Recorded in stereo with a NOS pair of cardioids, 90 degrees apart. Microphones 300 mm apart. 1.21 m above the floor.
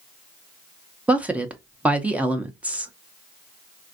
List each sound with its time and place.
1.1 s a woman speaking: 5° right, 0.5 m